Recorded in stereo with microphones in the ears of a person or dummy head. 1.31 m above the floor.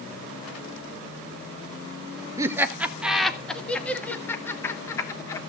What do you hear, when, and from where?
2.4 s laughter: 20° right (ahead or behind), 1.2 m; by 5.4 s 20° left (ahead or behind), 3 m